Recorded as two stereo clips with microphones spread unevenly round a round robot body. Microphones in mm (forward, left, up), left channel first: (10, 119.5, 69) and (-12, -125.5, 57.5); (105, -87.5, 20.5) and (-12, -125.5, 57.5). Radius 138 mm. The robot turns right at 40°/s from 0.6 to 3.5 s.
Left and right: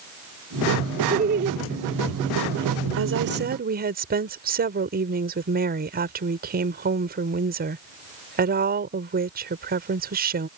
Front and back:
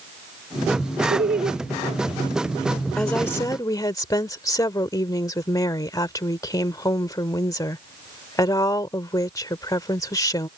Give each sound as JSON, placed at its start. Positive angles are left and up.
{"t": 1.1, "sound": "laughter", "azimuth_deg": -155}
{"t": 3.0, "sound": "a woman speaking", "azimuth_deg": -65}